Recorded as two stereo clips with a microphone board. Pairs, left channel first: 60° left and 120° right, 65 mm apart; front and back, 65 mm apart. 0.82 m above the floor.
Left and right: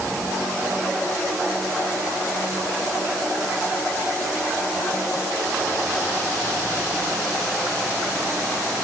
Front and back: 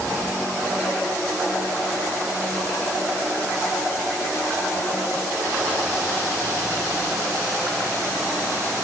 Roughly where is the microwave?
No microwave in this recording.